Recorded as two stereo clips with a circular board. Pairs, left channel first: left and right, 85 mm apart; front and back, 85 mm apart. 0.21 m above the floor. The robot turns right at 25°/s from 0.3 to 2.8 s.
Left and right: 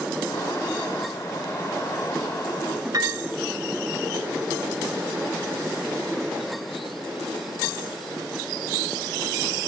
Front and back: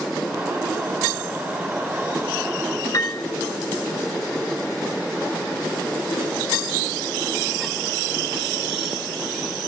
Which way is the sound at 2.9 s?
45° right.